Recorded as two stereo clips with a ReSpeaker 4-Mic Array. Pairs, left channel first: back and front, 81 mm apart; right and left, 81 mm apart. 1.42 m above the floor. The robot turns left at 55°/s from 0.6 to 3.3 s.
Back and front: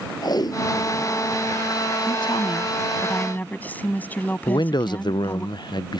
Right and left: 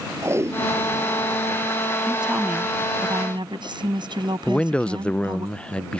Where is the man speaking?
165° right.